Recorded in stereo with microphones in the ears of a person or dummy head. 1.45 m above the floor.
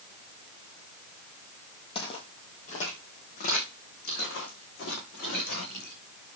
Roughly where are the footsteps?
Left.